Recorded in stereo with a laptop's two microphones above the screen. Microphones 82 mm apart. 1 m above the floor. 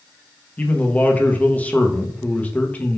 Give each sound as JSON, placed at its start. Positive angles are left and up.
{"t": 0.6, "sound": "a man speaking", "side_deg": 20, "distance_m": 0.7}